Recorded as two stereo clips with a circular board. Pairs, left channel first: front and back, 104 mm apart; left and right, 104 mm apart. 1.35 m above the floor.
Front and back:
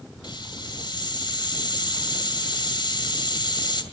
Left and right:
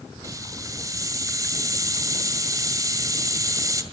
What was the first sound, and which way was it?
A hiss, 35° right.